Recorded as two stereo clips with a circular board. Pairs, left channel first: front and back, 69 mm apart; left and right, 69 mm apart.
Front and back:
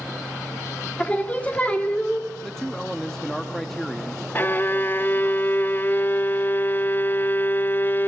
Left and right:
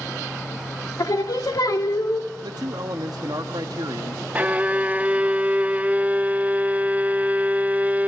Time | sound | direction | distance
1.0 | singing | 70° left | 1.9 m
2.4 | a man speaking | 85° right | 1.0 m
4.3 | a violin | 35° right | 0.5 m